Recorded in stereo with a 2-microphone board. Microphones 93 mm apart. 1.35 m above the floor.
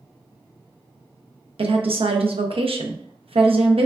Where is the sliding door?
No sliding door in this recording.